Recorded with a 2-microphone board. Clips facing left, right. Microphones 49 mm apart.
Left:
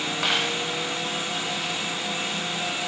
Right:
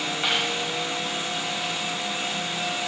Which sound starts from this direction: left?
A dropped coin, at 0.2 s.